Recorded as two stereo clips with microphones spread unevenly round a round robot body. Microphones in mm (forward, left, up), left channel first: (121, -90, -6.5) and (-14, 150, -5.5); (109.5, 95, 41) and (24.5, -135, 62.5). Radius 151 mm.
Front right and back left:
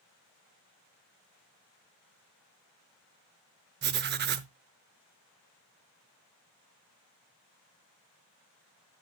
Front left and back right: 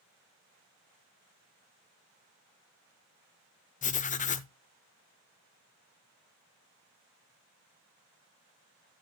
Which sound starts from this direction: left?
Writing, at 3.8 s.